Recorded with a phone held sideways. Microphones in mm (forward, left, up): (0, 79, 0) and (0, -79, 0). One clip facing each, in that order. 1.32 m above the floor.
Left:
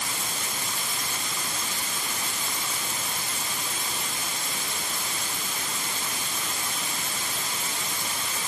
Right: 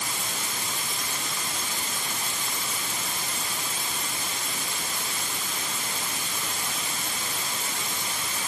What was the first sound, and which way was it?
Only background noise.